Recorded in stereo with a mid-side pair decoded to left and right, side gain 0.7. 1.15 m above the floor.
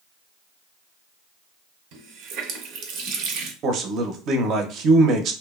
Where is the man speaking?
45° right, 0.6 m.